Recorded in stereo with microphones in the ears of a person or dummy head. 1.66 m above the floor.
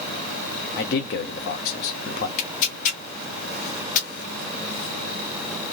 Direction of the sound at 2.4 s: 50° left (ahead or behind).